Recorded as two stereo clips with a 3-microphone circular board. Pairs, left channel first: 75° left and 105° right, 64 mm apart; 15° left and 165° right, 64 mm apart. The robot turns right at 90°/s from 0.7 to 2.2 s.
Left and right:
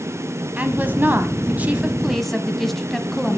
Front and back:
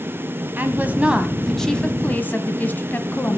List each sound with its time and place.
0.6 s a woman speaking: 145° right, 1.5 m; by 3.4 s 10° right, 1.5 m